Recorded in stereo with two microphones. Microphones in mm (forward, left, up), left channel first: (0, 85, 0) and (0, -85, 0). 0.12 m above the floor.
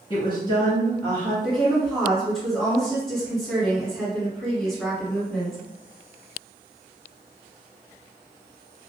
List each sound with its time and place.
0.1 s a woman speaking: 30° left (ahead or behind), 1.3 m; by 1.3 s 10° left (ahead or behind), 1.4 m
1.4 s a woman speaking: centre (ahead or behind), 1.8 m